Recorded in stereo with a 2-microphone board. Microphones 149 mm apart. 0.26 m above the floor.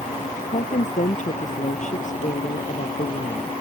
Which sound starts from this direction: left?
A woman speaking, at 0.5 s.